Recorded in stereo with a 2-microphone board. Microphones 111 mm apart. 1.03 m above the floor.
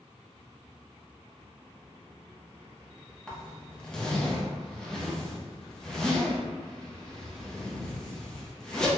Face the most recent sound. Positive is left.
turn(degrees=5)  # may be behind; listen again after turning